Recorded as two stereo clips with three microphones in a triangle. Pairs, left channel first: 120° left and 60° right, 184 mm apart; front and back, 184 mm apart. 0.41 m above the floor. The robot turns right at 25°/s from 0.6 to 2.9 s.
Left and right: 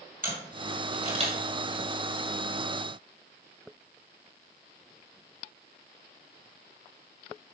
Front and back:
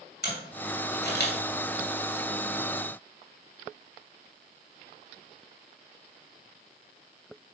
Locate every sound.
0.2 s a camera shutter: 25° right, 2.5 m; by 1.4 s 5° right, 2.5 m